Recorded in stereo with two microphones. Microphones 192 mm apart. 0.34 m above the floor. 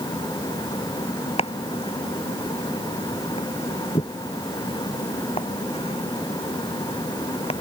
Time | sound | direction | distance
1.4 | chopping | 35° left (ahead or behind) | ?